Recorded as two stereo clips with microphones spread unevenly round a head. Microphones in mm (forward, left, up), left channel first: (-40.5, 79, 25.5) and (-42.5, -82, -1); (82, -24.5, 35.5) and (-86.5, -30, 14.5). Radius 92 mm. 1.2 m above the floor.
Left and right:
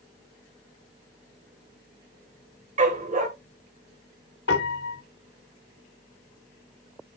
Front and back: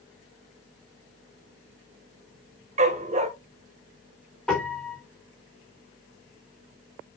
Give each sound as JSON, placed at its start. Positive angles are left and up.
{"t": 2.8, "sound": "a dog barking", "azimuth_deg": -130, "distance_m": 1.9}
{"t": 4.5, "sound": "a piano", "azimuth_deg": 85, "distance_m": 3.0}